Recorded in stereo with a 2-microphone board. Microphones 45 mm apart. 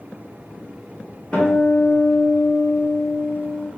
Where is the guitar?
25° left (ahead or behind), 1.2 m.